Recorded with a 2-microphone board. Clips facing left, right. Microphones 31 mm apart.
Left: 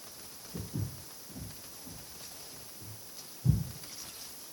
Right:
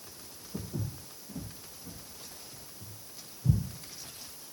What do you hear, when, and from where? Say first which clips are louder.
0.5 s footsteps: right 2 dB; 60° right (ahead or behind), 1.6 m; by 3.6 s 10° right (ahead or behind), 1.6 m